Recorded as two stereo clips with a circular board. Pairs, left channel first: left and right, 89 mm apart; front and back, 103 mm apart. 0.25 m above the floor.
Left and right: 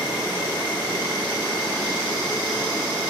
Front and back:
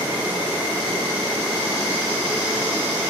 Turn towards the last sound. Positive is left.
turn(degrees=110)